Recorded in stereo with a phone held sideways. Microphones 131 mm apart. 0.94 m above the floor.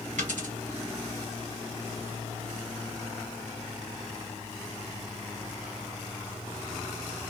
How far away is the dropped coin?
About 2.5 m.